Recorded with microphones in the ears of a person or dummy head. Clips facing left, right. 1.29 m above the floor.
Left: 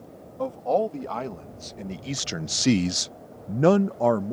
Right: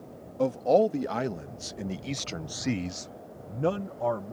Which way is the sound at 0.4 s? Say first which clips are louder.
Right 2 dB; 25° right (ahead or behind).